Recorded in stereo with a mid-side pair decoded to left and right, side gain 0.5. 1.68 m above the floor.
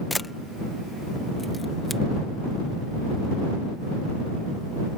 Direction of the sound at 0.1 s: 15° left.